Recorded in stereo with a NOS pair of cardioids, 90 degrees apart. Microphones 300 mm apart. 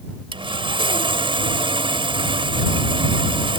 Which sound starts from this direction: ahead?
Sawing, at 0.3 s.